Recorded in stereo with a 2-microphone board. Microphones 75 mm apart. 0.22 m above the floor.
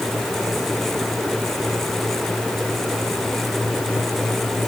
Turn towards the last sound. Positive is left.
No sound to turn to.